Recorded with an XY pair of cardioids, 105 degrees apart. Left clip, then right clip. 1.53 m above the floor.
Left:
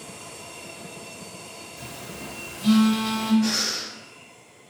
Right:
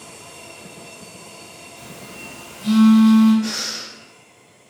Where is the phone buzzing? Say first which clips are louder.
Right 1 dB; 50° left, 1.0 m.